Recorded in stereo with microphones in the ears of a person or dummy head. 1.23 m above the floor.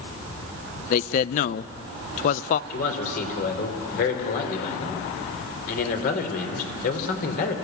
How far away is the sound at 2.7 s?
About 3.5 m.